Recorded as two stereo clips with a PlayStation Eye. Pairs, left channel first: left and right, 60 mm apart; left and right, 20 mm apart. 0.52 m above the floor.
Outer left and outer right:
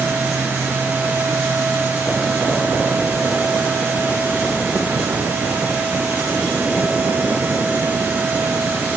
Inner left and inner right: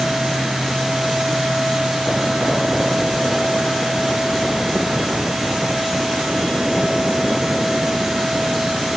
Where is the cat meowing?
I don't hear a cat meowing.